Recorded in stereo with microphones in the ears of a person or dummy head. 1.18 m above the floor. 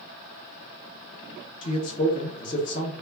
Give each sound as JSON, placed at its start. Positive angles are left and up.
{"t": 1.6, "sound": "a man speaking", "side_deg": 25, "distance_m": 0.7}